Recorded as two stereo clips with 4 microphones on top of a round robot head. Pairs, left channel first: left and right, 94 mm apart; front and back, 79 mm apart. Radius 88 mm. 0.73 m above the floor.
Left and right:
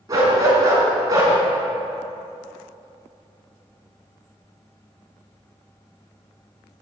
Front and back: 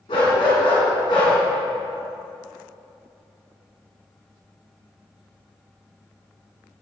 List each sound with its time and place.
0.1 s a dog barking: 35° right, 3 m